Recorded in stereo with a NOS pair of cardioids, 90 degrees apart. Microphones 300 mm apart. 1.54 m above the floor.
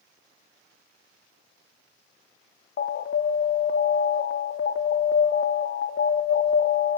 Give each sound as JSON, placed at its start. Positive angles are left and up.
{"t": 2.8, "sound": "an alarm", "azimuth_deg": 45, "distance_m": 0.7}